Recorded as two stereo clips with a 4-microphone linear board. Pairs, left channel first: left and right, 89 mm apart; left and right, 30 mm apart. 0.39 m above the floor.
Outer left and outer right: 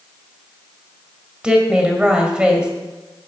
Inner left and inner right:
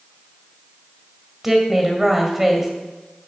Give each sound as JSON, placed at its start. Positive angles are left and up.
{"t": 1.4, "sound": "a woman speaking", "side_deg": -10, "distance_m": 2.0}